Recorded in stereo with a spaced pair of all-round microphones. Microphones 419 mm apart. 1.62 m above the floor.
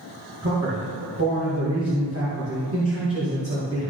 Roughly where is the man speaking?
Right.